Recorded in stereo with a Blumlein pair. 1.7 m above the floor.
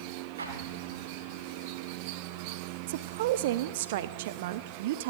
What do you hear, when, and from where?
0.4 s an explosion: 70° right, 1.9 m
2.9 s a woman speaking: 55° right, 0.6 m